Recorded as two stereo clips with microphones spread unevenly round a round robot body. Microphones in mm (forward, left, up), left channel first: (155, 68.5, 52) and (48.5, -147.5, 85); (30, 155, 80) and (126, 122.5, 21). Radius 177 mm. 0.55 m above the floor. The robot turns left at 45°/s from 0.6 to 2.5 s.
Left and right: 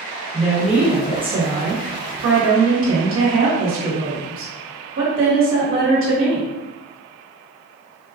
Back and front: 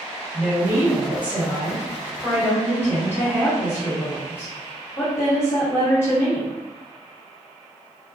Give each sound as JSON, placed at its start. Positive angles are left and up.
{"t": 0.3, "sound": "a woman speaking", "azimuth_deg": -20, "distance_m": 1.3}